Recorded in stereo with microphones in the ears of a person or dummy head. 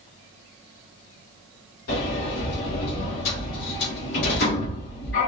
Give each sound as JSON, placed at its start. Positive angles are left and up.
{"t": 1.9, "sound": "a sliding door", "side_deg": 65, "distance_m": 2.5}